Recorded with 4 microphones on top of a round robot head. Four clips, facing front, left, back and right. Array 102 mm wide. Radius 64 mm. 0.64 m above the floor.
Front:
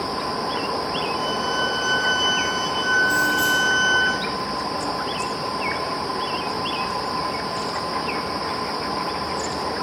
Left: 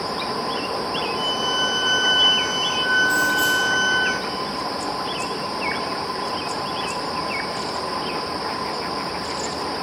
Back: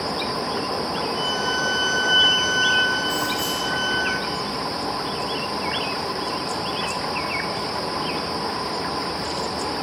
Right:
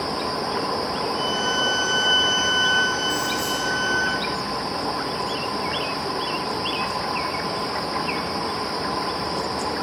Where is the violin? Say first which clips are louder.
Even, front 1 dB; straight ahead, 6.5 m.